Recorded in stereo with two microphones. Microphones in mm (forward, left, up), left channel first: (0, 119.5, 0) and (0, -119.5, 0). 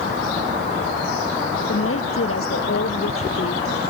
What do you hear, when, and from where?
1.7 s a woman speaking: 65° left (ahead or behind)